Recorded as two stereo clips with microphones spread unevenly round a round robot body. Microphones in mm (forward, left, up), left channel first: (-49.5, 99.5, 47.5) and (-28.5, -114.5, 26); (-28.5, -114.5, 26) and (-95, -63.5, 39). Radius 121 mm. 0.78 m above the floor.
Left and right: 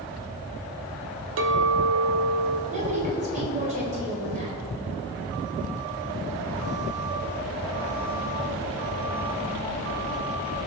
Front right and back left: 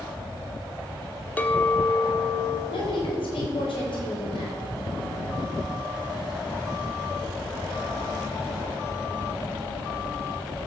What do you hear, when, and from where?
1.4 s a clink: 110° right, 1.1 m
2.7 s a woman speaking: 25° right, 3.5 m